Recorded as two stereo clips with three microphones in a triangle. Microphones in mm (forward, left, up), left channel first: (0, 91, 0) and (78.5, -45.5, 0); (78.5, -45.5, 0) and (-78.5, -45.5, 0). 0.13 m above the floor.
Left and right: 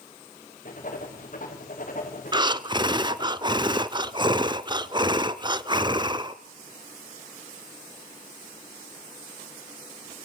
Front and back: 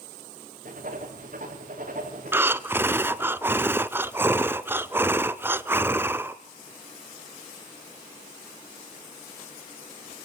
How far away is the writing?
About 5.5 m.